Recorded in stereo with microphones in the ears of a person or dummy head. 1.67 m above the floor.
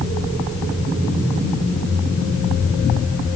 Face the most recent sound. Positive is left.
No sound to turn to.